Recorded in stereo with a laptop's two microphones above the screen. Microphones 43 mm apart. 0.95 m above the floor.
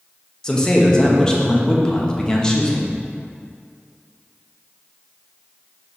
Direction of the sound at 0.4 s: 15° left (ahead or behind).